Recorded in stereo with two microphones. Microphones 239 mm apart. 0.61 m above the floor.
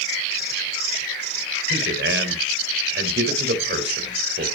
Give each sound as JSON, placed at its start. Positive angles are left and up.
{"t": 1.7, "sound": "a man speaking", "side_deg": -50, "distance_m": 2.5}